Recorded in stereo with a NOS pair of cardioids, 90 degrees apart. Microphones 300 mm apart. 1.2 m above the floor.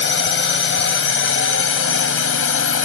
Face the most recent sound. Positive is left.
turn(degrees=45)